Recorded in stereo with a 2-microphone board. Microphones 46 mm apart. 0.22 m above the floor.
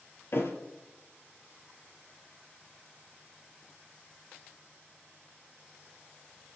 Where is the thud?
50° left (ahead or behind), 1.8 m.